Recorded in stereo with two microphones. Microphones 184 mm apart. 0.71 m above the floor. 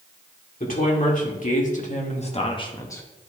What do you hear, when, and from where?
0.6 s a woman speaking: 45° left (ahead or behind), 2.5 m; by 3.0 s 15° left (ahead or behind), 1.0 m